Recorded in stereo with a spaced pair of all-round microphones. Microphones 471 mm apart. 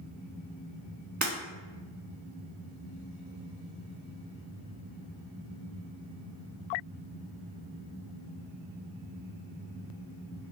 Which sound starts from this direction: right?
Breaking glass, at 1.2 s.